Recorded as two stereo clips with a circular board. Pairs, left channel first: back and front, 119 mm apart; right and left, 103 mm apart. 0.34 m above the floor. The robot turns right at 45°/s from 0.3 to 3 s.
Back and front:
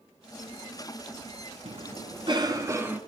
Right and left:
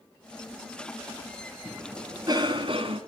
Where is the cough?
15° left, 4 m; by 3.0 s 75° left, 4 m.